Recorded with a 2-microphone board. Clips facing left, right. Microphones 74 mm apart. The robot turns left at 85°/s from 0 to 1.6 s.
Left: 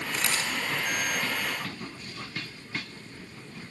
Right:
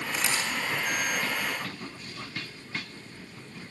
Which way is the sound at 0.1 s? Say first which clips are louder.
Even; 10° right (ahead or behind).